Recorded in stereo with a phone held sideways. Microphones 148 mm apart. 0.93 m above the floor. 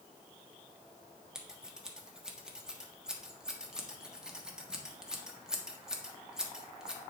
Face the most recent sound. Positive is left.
turn(degrees=-5)  # may be behind; listen again after turning